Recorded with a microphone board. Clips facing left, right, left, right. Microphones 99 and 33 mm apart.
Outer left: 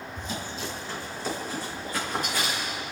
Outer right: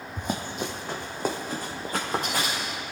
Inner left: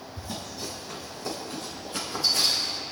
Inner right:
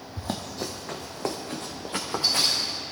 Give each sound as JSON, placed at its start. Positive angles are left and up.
{"t": 0.2, "sound": "running footsteps", "side_deg": -55, "distance_m": 1.7}